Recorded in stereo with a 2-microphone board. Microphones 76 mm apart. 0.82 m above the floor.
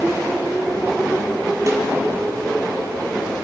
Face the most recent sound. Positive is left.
turn(degrees=-40)  # may be behind; listen again after turning